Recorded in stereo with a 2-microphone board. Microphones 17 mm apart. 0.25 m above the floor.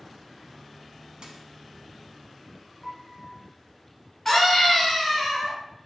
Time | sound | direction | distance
1.2 | a dropped coin | 65° right (ahead or behind) | 0.7 m
2.8 | a piano | 35° left (ahead or behind) | 1.5 m
4.2 | a scream | 20° left (ahead or behind) | 1.7 m